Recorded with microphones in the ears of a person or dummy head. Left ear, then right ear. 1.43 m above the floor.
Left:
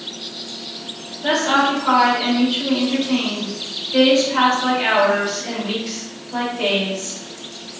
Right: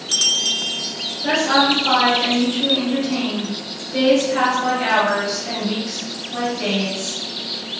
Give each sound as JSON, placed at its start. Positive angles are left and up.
{"t": 1.2, "sound": "a woman speaking", "side_deg": 60, "distance_m": 1.7}